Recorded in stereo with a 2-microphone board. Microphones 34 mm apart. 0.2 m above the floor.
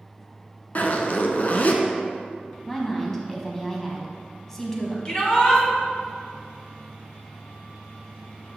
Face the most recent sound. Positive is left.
turn(degrees=25)  # may be behind; listen again after turning